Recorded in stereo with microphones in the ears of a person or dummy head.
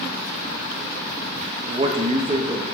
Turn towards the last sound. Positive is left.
turn(degrees=-25)  # may be behind; listen again after turning